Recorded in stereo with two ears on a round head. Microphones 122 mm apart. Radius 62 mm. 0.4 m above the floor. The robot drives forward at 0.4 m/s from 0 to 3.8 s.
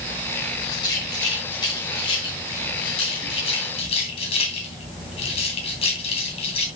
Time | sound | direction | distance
0.7 | a rattle | 30° left (ahead or behind) | 3.5 m